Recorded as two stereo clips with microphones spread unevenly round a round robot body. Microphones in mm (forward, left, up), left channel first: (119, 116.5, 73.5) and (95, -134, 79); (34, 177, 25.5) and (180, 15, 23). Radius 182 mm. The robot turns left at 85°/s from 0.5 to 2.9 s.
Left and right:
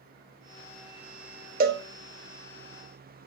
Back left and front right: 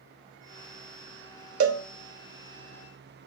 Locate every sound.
1.6 s a cowbell: 40° right, 0.5 m; by 1.8 s 60° right, 0.5 m